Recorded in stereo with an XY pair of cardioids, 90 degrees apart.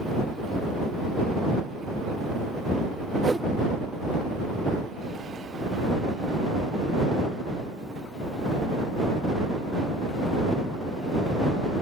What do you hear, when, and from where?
3.2 s a whoosh: 30° right